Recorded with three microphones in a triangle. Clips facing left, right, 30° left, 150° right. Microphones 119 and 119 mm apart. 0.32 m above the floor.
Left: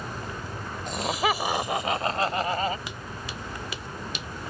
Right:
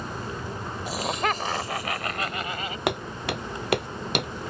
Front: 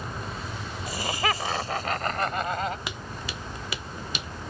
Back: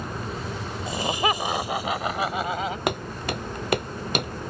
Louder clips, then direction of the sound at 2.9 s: Right 9 dB, back 9 dB; 115° right.